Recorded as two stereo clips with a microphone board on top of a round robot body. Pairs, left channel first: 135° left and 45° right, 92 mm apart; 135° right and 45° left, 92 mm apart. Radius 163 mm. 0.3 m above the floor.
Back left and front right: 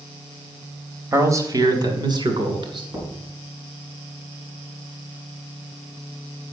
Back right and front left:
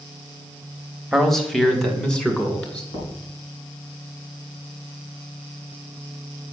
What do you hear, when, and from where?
1.1 s a man speaking: 45° right, 1.6 m; by 2.8 s 60° right, 3 m
2.9 s knocking: 115° right, 4 m